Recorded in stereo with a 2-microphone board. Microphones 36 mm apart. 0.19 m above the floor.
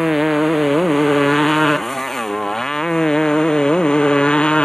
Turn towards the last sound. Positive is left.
turn(degrees=30)  # may be behind; listen again after turning